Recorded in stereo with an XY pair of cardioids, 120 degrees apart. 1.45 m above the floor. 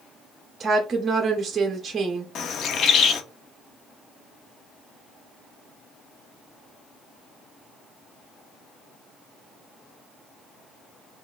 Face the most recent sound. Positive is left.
turn(degrees=55)